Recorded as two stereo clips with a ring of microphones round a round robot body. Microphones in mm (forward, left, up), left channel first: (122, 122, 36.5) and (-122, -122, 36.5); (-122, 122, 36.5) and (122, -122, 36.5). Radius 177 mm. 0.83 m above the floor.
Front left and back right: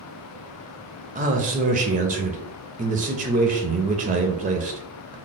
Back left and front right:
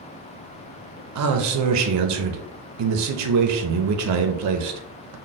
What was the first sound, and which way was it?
A man speaking, 70° right.